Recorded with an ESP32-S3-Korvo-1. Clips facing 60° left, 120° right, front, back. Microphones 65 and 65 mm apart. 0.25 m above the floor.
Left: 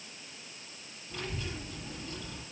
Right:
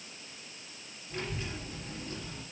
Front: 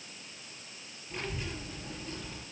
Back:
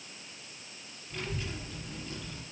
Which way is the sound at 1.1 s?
60° right.